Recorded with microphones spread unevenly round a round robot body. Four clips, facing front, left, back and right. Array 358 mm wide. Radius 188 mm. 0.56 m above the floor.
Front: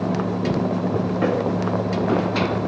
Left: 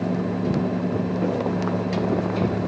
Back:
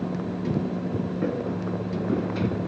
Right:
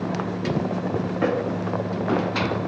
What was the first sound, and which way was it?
Only background noise.